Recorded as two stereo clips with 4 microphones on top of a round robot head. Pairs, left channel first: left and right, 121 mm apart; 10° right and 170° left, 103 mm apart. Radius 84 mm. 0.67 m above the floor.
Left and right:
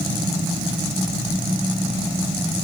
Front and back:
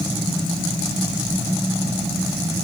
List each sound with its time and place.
Only background noise.